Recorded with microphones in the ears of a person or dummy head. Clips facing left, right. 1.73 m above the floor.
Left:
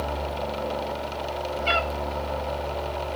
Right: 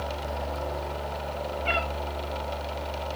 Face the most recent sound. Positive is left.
turn(degrees=55)  # may be behind; listen again after turning